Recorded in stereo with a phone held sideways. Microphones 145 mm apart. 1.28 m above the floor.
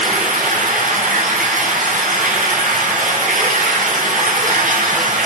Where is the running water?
70° right (ahead or behind), 5.5 m.